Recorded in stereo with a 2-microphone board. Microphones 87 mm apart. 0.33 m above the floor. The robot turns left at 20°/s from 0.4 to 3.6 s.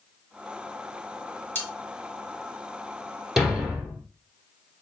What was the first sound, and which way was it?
Cutlery clinking, 25° left (ahead or behind).